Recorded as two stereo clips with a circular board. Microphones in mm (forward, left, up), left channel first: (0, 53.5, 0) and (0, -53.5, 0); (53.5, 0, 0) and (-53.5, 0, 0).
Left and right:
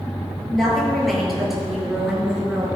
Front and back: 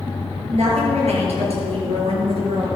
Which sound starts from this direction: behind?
A woman speaking, at 0.5 s.